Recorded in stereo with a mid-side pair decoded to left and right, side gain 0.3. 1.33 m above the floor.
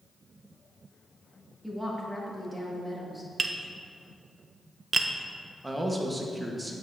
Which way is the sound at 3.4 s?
45° right.